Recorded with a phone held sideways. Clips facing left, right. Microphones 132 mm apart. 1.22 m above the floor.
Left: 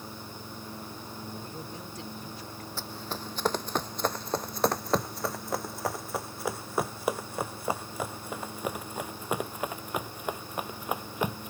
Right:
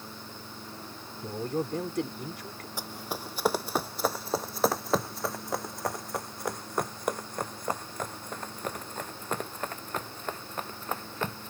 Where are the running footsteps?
15° right (ahead or behind); by 11.5 s 15° left (ahead or behind).